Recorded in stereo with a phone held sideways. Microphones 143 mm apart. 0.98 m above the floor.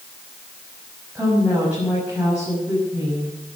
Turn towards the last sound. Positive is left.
turn(degrees=-5)  # may be behind; listen again after turning